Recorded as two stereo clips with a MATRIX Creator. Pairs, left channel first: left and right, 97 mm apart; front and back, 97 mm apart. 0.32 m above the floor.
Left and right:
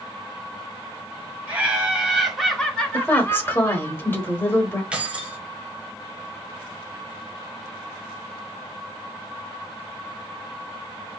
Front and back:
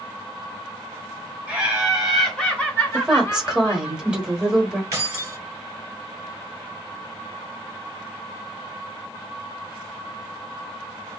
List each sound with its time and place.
1.5 s laughter: 130° right, 1.2 m; by 3.9 s 35° left, 1.7 m
2.9 s a woman speaking: 110° left, 1.0 m
4.9 s keys jangling: 155° right, 0.8 m